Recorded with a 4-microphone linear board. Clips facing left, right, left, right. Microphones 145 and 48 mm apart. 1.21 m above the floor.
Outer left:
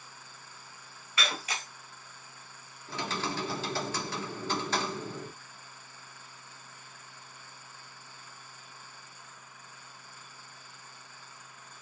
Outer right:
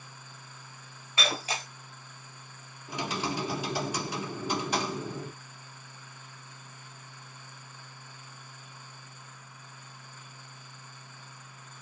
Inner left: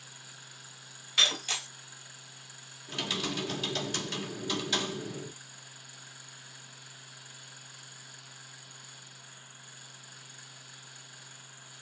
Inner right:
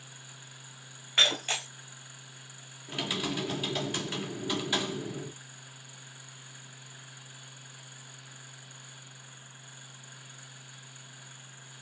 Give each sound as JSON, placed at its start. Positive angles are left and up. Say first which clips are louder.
{"t": 1.2, "sound": "breaking glass", "louder": "outer right 3 dB, inner right 2 dB", "side_deg": -30, "distance_m": 1.9}
{"t": 2.9, "sound": "typing on a keyboard", "louder": "outer right 2 dB, inner right 1 dB", "side_deg": -15, "distance_m": 1.7}